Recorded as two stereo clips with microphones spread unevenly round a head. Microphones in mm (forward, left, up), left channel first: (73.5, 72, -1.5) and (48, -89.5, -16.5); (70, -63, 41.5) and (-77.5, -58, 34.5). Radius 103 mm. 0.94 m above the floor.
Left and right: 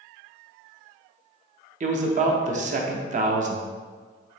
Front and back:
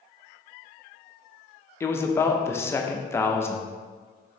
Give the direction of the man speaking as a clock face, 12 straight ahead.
3 o'clock.